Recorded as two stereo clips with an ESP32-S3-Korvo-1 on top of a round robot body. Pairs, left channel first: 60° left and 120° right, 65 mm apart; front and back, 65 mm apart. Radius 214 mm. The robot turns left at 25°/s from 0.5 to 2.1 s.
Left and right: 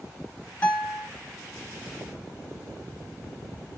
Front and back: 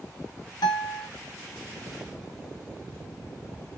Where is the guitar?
10° right, 1.5 m; by 1.1 s 20° right, 1.5 m.